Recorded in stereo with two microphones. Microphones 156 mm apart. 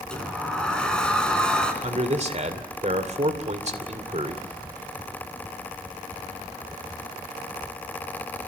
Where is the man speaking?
45° right (ahead or behind), 2.5 m.